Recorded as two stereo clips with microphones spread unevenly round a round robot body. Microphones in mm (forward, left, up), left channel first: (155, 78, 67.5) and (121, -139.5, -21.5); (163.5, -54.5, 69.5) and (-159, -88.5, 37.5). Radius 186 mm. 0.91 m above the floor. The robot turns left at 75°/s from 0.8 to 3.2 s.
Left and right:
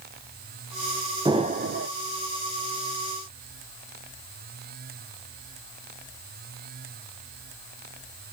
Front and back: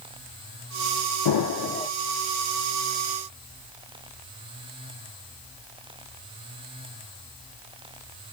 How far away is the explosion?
About 1.2 m.